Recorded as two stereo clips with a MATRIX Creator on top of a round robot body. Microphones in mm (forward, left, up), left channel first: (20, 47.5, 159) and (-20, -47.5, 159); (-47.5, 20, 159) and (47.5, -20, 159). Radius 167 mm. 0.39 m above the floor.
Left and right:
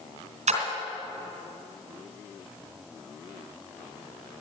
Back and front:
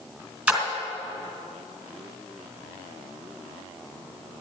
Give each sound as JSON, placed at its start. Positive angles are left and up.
{"t": 0.5, "sound": "a splash", "azimuth_deg": -100, "distance_m": 2.0}